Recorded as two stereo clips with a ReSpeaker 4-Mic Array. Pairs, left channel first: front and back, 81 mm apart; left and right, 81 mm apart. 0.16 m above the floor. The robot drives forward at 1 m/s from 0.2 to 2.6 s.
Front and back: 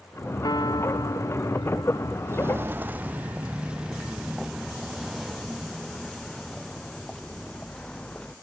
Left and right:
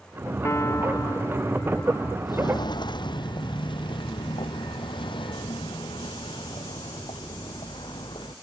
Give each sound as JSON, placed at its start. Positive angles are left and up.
{"t": 0.4, "sound": "a piano", "azimuth_deg": 35}
{"t": 2.3, "sound": "footsteps", "azimuth_deg": 120}